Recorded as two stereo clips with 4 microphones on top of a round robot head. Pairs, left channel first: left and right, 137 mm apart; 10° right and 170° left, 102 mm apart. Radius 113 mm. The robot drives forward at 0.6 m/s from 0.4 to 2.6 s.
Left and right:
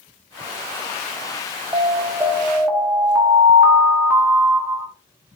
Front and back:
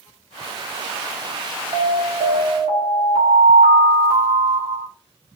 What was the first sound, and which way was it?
An alarm, 155° right.